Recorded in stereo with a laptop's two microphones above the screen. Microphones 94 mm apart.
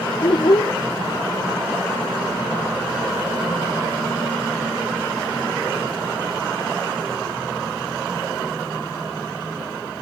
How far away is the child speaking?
About 0.5 m.